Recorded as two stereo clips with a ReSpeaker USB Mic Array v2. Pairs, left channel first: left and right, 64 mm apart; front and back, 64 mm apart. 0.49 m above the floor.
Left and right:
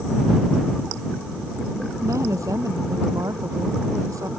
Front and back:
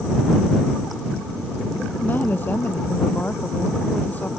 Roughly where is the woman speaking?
Ahead right.